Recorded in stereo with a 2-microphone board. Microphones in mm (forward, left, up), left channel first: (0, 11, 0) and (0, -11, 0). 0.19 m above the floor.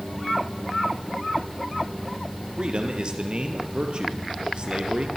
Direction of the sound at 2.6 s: 45° right (ahead or behind).